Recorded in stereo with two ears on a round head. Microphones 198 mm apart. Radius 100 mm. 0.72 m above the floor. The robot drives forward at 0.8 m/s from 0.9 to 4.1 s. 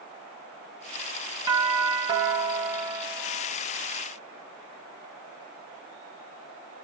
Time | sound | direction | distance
1.5 | a doorbell | 20° right (ahead or behind) | 1.2 m